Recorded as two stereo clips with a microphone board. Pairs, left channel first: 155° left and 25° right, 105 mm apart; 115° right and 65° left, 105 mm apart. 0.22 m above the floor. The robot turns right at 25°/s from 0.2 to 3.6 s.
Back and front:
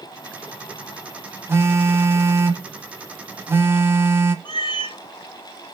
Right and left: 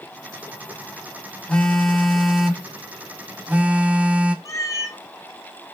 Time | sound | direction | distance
1.5 | a phone buzzing | 45° right | 0.6 m
4.5 | a cat meowing | 165° right | 0.6 m